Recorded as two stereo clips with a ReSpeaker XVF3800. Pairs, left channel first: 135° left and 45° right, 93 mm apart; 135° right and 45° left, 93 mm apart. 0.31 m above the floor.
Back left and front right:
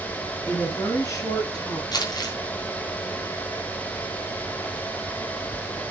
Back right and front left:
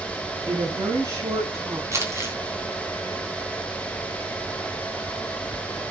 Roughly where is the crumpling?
Left.